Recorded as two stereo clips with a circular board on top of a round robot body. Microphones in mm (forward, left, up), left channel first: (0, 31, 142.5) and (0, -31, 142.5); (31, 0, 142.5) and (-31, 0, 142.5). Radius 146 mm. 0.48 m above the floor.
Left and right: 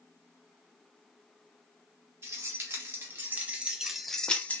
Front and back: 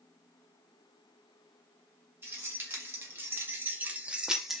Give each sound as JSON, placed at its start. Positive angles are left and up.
{"t": 2.2, "sound": "keys jangling", "azimuth_deg": -130, "distance_m": 1.3}